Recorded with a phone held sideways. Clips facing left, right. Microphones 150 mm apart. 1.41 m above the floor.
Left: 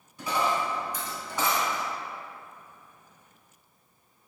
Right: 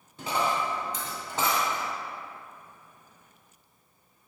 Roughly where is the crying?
I don't hear crying.